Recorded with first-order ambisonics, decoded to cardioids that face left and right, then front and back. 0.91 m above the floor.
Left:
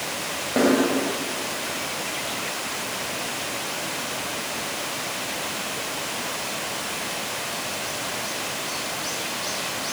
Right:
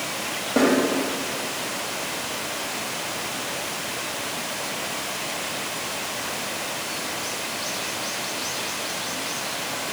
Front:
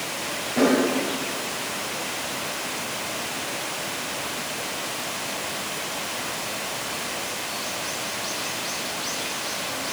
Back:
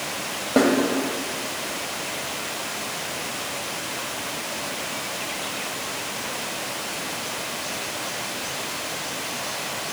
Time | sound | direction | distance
0.6 | a snare drum | straight behind | 1.5 m